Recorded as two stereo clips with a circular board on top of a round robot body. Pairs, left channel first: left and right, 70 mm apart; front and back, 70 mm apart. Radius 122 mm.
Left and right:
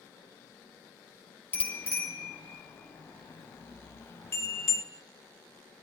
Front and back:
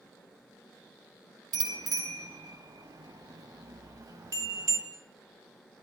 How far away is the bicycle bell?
About 4 m.